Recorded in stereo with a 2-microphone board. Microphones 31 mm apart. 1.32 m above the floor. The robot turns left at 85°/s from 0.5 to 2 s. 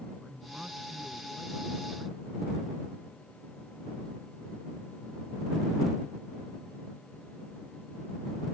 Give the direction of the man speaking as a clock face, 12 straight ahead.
1 o'clock.